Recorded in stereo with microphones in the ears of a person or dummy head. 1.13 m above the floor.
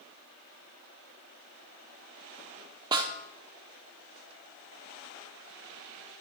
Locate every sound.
2.9 s a snare drum: 25° right (ahead or behind), 1.0 m